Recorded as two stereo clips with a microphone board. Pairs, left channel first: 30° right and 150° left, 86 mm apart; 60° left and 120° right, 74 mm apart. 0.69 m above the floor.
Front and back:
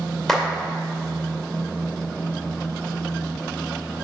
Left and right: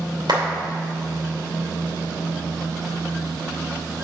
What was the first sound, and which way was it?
A clap, 115° right.